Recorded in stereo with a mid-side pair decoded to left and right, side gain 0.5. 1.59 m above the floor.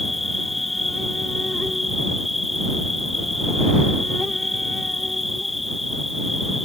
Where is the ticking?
No ticking in this recording.